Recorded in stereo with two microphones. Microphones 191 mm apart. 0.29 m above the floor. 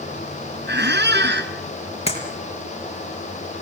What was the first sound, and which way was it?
A squeak, 65° right (ahead or behind).